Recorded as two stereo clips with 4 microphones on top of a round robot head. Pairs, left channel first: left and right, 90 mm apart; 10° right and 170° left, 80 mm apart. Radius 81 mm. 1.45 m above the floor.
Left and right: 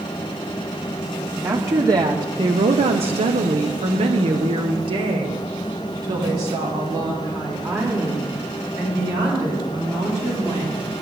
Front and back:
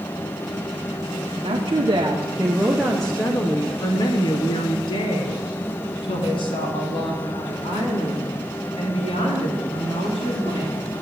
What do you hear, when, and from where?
1.4 s a woman speaking: 150° right, 0.9 m; by 10.8 s 25° right, 4 m